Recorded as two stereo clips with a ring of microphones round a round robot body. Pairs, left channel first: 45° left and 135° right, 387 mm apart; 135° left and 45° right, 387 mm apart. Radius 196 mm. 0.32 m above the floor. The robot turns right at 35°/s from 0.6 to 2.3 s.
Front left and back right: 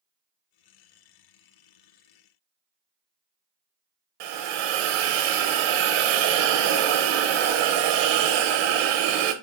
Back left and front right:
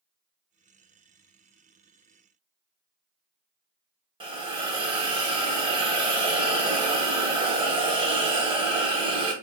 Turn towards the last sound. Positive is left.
turn(degrees=-120)